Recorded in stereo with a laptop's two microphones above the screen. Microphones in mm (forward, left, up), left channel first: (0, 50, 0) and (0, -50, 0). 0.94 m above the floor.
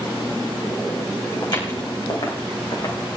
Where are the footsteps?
45° left (ahead or behind), 3.5 m; by 2.9 s 55° left (ahead or behind), 4.5 m.